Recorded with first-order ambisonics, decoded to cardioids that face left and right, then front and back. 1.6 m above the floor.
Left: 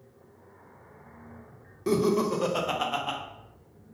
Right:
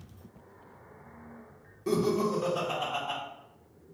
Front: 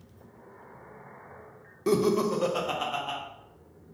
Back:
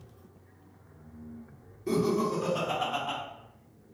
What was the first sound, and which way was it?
Laughter, 25° left.